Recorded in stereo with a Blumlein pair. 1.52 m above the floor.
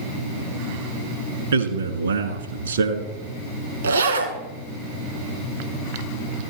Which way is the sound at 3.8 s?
70° right.